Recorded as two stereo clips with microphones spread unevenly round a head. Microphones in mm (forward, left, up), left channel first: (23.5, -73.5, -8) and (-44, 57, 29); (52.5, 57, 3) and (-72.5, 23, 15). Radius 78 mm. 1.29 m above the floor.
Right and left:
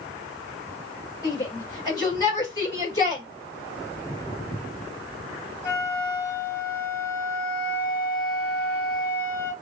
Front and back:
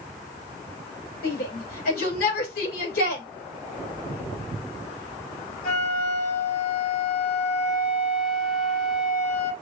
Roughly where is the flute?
Ahead.